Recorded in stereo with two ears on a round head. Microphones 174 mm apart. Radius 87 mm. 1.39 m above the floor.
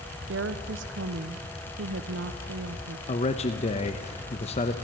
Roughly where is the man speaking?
Left.